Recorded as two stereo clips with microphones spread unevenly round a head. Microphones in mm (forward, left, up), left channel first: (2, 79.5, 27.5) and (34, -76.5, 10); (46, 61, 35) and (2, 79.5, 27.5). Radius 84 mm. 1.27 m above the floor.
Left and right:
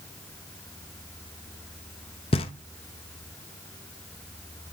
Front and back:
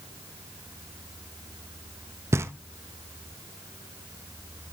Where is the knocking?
140° left, 0.6 m.